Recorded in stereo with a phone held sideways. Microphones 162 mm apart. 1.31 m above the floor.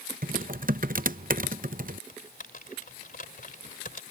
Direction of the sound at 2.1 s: 60° left (ahead or behind).